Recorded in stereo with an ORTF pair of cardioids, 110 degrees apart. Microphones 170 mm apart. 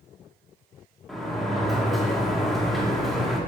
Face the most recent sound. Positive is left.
turn(degrees=0)